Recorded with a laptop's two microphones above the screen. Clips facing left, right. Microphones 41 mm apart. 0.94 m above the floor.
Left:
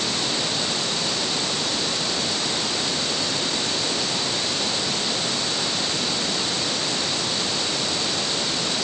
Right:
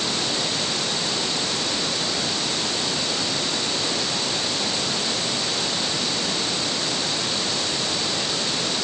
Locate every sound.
Only background noise.